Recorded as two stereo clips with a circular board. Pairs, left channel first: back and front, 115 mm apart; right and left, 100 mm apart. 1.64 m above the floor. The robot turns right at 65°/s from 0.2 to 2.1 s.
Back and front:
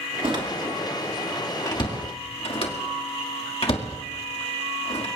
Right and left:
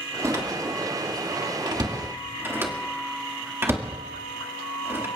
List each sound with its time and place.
0.2 s a door slam: 35° left, 1.9 m; by 5.1 s 155° left, 1.9 m